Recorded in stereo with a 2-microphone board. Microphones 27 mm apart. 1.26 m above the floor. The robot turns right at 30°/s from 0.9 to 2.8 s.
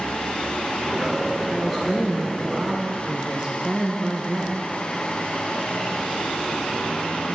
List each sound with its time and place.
1.5 s a woman speaking: 175° left, 1.0 m; by 4.6 s 145° right, 1.0 m